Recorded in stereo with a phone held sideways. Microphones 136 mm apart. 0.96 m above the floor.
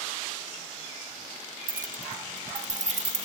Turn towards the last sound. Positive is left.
turn(degrees=-55)  # may be behind; listen again after turning